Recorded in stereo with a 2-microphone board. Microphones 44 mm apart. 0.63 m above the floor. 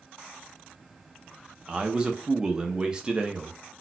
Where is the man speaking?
20° right (ahead or behind), 0.5 m.